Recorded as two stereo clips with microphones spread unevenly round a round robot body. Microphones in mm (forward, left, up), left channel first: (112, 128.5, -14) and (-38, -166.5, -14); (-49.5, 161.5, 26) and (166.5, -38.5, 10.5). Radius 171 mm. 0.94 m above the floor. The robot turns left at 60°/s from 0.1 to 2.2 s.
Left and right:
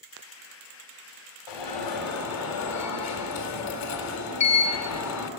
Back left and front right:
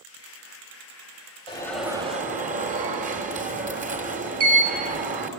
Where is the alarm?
65° left, 4 m; by 5.3 s 20° left, 4 m.